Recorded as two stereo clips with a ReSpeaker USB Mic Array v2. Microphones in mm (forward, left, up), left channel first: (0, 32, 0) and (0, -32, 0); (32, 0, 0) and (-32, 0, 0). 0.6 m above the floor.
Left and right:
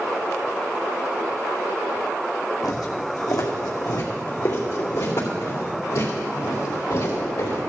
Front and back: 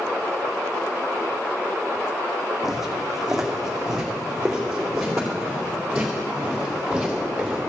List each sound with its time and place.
2.6 s footsteps: 95° left, 2 m; by 7.6 s 100° left, 4.5 m